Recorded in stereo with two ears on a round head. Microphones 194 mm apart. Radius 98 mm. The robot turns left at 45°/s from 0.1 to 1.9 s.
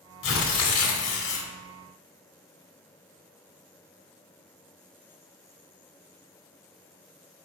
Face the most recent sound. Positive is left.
turn(degrees=35)